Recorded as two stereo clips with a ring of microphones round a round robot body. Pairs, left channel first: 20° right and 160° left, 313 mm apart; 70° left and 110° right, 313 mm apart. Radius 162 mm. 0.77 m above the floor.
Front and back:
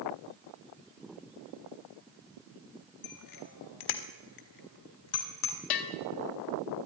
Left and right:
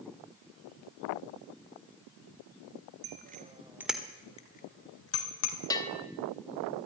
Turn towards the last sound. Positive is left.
turn(degrees=-10)